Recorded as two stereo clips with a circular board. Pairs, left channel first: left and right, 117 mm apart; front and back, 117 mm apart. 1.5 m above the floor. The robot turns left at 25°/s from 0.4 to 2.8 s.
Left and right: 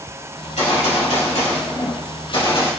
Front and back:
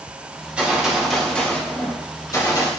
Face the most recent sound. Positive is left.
turn(degrees=45)